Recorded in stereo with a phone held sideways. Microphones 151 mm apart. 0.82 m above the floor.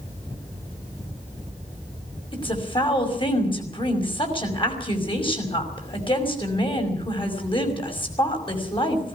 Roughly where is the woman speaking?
Left.